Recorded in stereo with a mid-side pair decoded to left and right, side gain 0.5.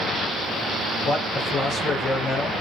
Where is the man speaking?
60° left, 4 m.